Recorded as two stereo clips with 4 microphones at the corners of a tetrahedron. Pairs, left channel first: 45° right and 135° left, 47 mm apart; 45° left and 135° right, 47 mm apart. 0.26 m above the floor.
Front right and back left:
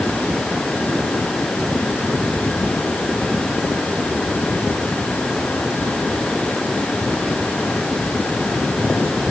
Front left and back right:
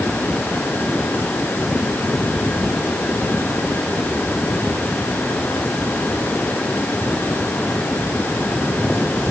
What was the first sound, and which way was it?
Only background noise.